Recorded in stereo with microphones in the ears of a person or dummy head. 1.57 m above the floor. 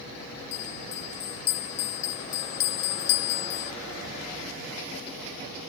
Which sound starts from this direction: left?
A bell, at 0.5 s.